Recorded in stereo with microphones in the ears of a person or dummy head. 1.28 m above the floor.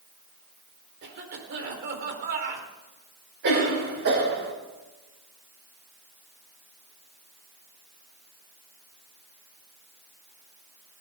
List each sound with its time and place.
1.0 s a cough: 55° right (ahead or behind), 4 m
3.4 s a cough: 55° right (ahead or behind), 6.5 m